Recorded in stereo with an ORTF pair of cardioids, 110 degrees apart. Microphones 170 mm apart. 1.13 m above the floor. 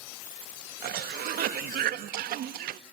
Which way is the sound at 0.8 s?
65° right.